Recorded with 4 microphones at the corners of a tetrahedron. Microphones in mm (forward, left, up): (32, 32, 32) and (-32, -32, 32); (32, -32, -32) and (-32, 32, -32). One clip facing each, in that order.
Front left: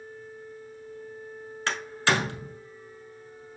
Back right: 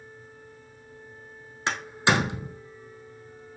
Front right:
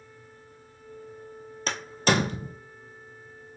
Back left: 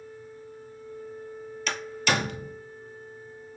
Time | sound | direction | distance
1.7 | a door slam | 75° right | 1.0 m